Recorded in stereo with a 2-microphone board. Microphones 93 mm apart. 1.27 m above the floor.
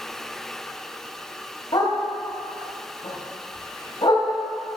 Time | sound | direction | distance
1.7 | a dog barking | 60° left (ahead or behind) | 2 m